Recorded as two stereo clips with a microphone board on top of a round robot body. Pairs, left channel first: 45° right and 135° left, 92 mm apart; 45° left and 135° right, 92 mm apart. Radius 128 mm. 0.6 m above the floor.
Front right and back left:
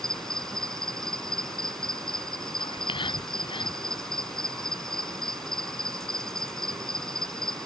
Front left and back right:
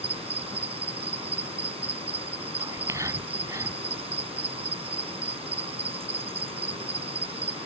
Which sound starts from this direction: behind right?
An insect, at 0.0 s.